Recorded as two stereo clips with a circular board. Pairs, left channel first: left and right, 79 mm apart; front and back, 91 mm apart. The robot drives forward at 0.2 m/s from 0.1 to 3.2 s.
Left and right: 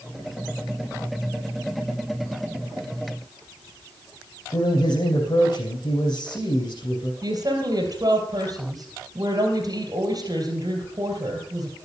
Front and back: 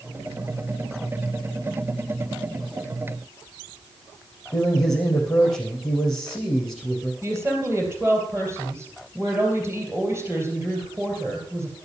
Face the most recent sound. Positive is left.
turn(degrees=-120)